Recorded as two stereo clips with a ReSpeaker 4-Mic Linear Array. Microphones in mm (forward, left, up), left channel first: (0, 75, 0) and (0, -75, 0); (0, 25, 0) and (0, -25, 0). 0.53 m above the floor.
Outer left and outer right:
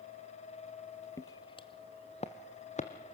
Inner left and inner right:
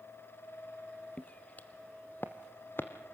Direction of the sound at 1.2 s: 20° left (ahead or behind).